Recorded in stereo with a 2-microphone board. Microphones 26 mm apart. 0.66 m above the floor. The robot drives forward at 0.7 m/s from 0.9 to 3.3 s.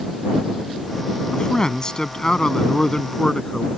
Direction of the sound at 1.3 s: 30° left (ahead or behind).